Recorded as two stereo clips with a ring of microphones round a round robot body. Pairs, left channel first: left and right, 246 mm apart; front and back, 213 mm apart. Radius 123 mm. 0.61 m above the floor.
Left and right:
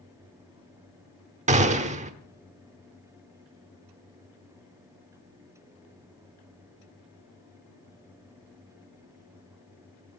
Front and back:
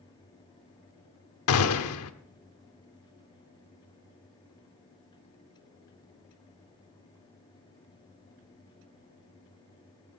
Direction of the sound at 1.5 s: 25° right.